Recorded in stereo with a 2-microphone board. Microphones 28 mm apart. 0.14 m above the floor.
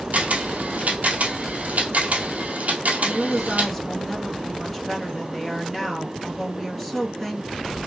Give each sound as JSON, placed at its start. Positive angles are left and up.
{"t": 0.1, "sound": "a camera shutter", "side_deg": -65, "distance_m": 1.4}
{"t": 3.0, "sound": "a woman speaking", "side_deg": 5, "distance_m": 2.5}